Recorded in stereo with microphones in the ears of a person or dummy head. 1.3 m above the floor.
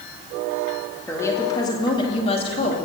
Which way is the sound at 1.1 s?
15° left (ahead or behind).